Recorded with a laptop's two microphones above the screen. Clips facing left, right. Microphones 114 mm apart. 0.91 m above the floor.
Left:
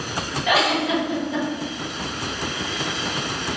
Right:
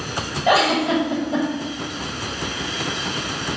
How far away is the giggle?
About 1.1 m.